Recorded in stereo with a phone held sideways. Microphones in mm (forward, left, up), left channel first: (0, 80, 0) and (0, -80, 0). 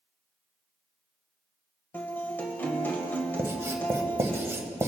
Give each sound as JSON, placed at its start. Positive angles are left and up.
{"t": 1.9, "sound": "a guitar", "side_deg": 10, "distance_m": 1.7}
{"t": 3.4, "sound": "writing", "side_deg": -15, "distance_m": 1.1}